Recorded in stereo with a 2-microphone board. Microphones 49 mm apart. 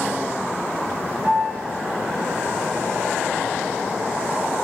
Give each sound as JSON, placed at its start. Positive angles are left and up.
{"t": 1.2, "sound": "a piano", "side_deg": -35, "distance_m": 1.5}